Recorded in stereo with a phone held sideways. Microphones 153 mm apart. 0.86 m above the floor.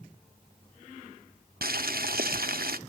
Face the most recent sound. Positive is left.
turn(degrees=-80)